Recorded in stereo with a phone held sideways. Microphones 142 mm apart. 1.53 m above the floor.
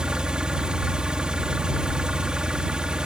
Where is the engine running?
5° right (ahead or behind).